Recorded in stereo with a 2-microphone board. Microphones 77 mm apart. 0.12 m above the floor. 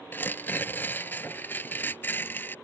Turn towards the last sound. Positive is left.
turn(degrees=25)  # may be behind; listen again after turning